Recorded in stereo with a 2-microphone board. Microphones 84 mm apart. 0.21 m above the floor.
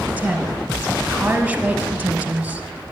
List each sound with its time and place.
0.2 s a woman speaking: 15° right (ahead or behind), 1.4 m